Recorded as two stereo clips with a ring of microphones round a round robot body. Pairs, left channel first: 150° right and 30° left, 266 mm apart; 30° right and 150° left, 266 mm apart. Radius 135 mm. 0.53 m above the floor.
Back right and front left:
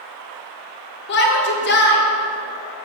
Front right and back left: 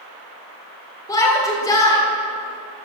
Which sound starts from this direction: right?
A shout, at 1.1 s.